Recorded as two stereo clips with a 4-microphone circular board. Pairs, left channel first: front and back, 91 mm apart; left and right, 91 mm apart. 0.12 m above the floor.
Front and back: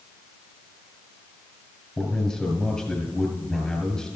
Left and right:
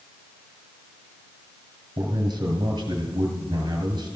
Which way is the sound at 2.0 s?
80° right.